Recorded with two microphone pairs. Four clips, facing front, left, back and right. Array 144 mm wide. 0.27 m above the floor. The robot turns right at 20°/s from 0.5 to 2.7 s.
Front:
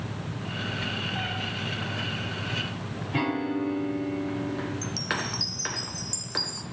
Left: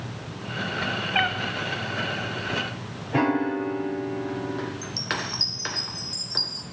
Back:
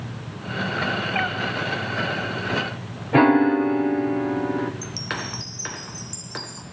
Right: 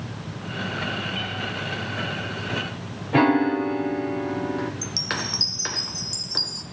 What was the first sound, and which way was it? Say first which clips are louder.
A cat meowing: left 7 dB, back 8 dB; 115° left.